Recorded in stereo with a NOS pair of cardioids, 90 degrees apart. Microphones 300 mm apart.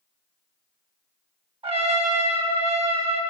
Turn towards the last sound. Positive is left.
turn(degrees=-20)